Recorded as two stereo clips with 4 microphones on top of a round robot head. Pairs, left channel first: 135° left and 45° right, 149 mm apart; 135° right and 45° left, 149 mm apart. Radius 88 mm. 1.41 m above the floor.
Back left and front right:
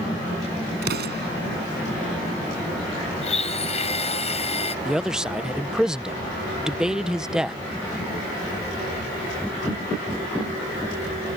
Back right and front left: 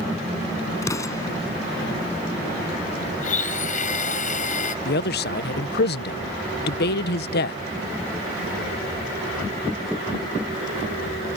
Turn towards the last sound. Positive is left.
turn(degrees=-130)